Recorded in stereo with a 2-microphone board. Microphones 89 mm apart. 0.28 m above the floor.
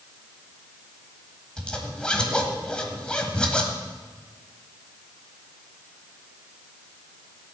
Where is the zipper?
10° left (ahead or behind), 1.6 m.